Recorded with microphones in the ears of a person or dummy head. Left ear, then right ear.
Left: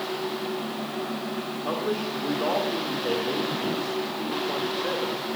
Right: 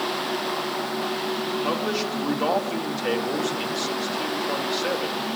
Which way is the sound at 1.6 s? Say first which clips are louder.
Left 1 dB; 80° right.